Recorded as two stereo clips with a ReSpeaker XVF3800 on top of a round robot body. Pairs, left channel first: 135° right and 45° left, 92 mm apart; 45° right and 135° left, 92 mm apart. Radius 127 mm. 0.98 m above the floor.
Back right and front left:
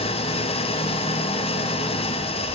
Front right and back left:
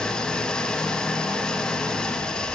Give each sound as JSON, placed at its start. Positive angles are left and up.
{"t": 0.0, "sound": "an engine running", "azimuth_deg": -125, "distance_m": 0.8}